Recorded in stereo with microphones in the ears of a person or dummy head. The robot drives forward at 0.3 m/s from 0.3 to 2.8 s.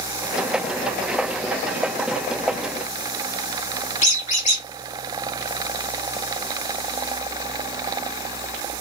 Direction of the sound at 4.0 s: 40° left (ahead or behind).